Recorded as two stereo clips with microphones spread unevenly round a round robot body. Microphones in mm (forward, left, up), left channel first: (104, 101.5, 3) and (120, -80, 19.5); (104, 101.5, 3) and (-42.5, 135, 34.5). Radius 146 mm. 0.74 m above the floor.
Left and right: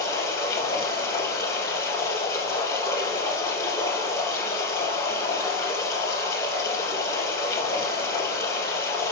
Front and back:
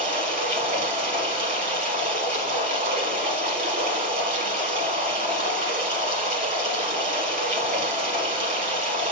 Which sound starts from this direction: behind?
Running water, at 0.0 s.